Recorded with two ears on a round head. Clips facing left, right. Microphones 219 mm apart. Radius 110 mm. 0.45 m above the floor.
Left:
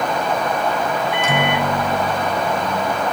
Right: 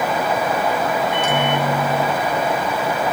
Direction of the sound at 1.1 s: 65° left (ahead or behind).